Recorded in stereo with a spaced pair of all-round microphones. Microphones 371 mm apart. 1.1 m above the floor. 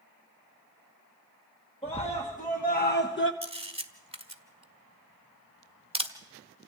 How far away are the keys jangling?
I don't hear keys jangling.